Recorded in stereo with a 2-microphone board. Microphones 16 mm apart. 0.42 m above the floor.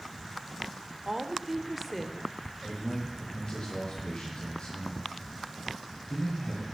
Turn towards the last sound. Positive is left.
turn(degrees=70)  # may be behind; listen again after turning